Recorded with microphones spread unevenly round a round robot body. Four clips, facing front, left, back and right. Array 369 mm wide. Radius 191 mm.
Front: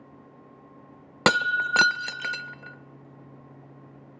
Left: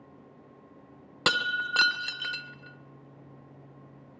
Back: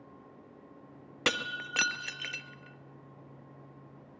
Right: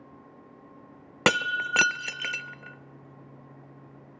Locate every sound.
1.3 s breaking glass: 30° right, 0.5 m